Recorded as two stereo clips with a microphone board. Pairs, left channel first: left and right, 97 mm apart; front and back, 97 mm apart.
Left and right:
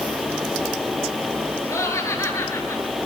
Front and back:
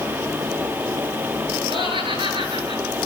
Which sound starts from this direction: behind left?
Laughter, at 1.7 s.